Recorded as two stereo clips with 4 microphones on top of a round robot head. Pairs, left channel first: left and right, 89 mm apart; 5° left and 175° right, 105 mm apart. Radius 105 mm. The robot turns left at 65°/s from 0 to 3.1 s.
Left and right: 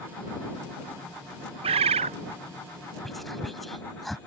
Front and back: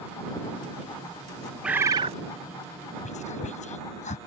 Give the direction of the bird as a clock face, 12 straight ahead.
3 o'clock.